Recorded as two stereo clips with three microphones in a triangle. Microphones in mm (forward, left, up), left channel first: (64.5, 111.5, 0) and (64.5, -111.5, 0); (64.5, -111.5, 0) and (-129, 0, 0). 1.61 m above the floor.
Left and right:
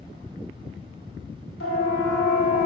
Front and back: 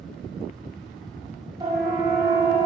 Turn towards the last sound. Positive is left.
turn(degrees=70)